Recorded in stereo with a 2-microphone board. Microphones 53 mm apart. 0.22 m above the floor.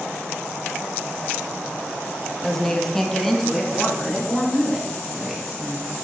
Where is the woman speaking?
10° left (ahead or behind), 1.0 m; by 6.0 s centre (ahead or behind), 4 m.